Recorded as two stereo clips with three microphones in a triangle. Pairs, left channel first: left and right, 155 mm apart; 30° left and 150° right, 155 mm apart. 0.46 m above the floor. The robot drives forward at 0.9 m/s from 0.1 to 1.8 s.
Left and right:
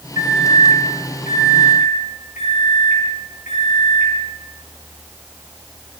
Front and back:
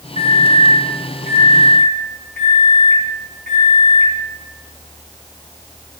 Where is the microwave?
80° left, 2.5 m; by 4.1 s 120° left, 2.5 m.